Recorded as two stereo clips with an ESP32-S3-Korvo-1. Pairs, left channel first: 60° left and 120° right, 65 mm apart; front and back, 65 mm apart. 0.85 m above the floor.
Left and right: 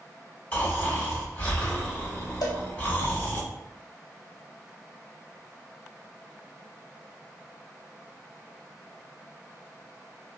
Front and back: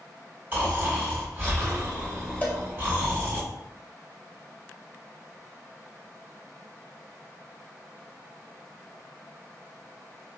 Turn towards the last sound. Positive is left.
turn(degrees=65)